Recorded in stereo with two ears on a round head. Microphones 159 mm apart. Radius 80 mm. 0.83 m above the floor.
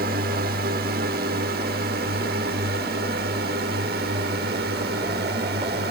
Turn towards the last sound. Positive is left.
turn(degrees=-65)  # may be behind; listen again after turning